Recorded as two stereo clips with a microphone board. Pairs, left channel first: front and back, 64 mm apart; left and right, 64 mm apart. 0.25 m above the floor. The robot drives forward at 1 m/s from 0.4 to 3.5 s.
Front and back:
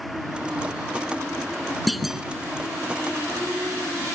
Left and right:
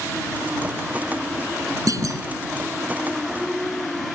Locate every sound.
1.9 s a clunk: 90° right; by 2.2 s 100° right